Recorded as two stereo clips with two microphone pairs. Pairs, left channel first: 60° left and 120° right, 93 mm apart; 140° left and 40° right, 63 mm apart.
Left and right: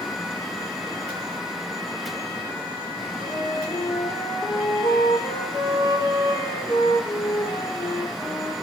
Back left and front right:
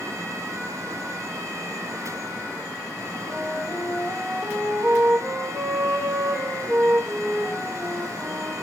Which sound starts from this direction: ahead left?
A flute, at 3.2 s.